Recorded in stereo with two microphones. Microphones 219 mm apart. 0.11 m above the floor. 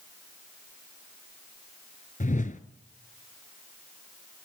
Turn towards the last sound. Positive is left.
turn(degrees=35)  # may be behind; listen again after turning